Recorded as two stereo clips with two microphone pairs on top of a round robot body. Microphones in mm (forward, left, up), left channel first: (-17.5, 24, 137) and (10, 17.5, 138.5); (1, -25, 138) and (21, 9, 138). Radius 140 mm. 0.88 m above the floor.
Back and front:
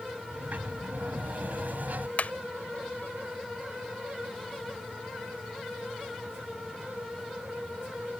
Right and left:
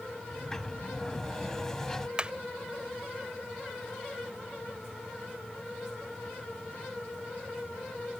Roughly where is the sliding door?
Ahead right.